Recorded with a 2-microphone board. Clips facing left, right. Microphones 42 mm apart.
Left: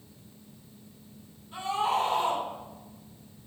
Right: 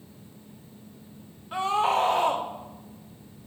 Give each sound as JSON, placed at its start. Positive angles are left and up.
{"t": 1.5, "sound": "a scream", "side_deg": -80, "distance_m": 1.7}